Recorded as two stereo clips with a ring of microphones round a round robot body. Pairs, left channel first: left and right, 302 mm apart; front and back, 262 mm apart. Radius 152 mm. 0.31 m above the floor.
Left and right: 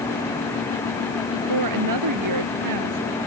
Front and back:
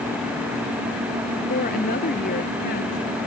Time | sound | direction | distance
1.3 | a woman speaking | 65° right | ?